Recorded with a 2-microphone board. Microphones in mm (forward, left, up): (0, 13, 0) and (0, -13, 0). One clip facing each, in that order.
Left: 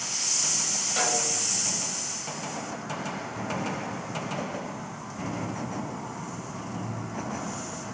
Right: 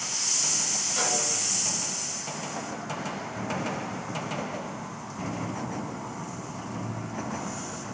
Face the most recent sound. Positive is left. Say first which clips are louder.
# left 2 dB
turn(degrees=45)  # may be behind; listen again after turning